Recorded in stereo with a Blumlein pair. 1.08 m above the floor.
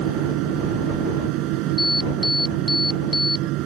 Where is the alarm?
5° left.